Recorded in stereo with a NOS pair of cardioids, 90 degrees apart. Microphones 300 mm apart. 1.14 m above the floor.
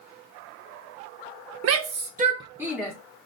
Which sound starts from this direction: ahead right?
A shout, at 1.6 s.